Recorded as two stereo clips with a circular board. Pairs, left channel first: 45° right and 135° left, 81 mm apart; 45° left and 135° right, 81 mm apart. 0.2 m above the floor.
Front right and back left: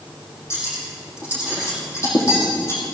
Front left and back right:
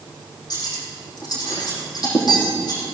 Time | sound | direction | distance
0.5 | cutlery clinking | 10° left | 5 m